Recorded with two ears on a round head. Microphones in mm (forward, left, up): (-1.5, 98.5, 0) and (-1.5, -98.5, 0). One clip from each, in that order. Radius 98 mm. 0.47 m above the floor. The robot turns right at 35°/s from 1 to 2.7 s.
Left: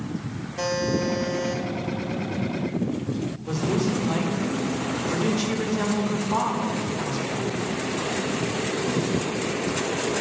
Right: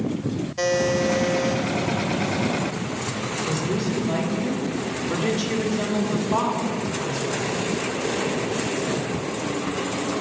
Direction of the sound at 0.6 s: 20° right (ahead or behind).